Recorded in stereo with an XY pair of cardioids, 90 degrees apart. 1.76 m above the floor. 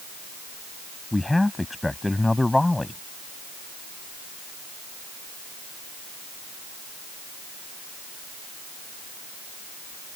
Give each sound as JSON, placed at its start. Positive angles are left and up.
{"t": 1.1, "sound": "a man speaking", "azimuth_deg": 15}